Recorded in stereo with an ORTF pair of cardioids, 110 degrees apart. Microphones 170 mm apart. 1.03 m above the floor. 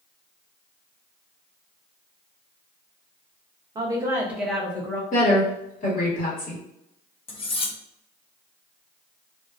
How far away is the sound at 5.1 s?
About 1.4 m.